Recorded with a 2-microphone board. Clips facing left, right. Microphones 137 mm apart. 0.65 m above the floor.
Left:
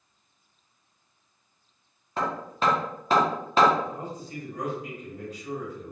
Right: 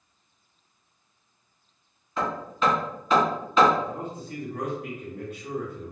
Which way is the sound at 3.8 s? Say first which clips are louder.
Right 1 dB; 60° right (ahead or behind).